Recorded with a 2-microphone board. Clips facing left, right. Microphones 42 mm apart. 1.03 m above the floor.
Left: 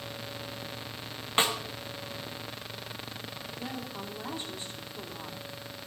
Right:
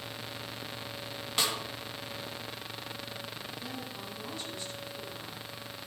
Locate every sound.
1.4 s a snare drum: 30° left (ahead or behind), 1.3 m
3.6 s a woman speaking: 30° left (ahead or behind), 3 m